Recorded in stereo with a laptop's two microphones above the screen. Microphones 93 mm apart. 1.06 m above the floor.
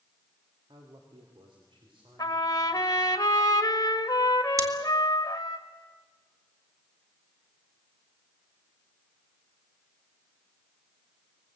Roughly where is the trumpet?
Left.